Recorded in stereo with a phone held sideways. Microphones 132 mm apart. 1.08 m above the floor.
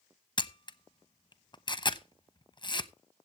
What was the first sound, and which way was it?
A camera shutter, 35° left (ahead or behind).